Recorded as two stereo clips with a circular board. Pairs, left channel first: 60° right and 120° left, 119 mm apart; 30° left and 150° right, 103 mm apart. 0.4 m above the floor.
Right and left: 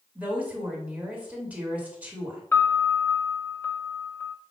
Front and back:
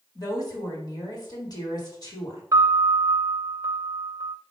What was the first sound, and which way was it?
A woman speaking, 50° left.